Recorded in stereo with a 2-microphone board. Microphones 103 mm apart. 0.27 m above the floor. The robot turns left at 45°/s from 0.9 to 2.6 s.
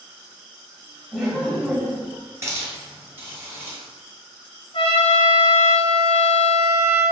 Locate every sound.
1.1 s laughter: centre (ahead or behind), 1.2 m; by 2.2 s 15° left (ahead or behind), 1.2 m
2.4 s a hiss: 30° right (ahead or behind), 1.4 m; by 3.8 s 20° right (ahead or behind), 1.4 m
4.7 s a trumpet: 60° left (ahead or behind), 0.8 m